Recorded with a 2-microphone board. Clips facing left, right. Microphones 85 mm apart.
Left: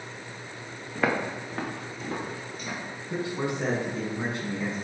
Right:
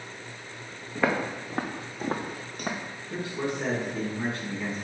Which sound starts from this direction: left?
A man speaking, at 3.1 s.